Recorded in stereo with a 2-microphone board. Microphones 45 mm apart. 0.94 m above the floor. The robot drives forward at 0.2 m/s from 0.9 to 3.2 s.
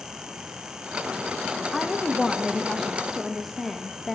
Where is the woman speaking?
Centre (ahead or behind), 0.7 m.